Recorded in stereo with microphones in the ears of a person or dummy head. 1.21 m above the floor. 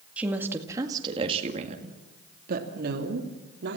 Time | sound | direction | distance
0.2 | a woman speaking | 5° right (ahead or behind) | 2.5 m